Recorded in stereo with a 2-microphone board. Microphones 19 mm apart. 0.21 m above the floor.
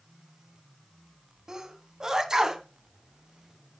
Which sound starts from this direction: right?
A sneeze, at 1.5 s.